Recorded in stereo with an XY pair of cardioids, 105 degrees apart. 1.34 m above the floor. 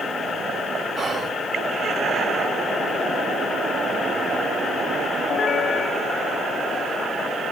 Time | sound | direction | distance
1.0 | whispering | 40° right | 1.1 m